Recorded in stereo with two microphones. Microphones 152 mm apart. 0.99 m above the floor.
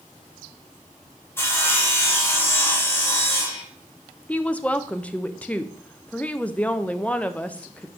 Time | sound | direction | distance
1.4 | sawing | 15° left (ahead or behind) | 1.3 m
4.3 | a woman speaking | 10° left (ahead or behind) | 0.5 m